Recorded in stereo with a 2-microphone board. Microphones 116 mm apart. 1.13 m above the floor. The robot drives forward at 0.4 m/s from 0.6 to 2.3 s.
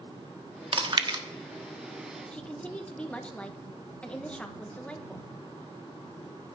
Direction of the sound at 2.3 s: 10° left (ahead or behind).